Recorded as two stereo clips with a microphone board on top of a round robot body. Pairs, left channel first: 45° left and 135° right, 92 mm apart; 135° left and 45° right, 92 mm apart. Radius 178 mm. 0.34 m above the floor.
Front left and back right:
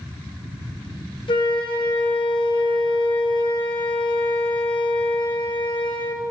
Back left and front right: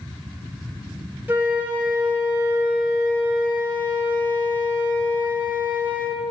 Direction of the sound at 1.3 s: 20° left.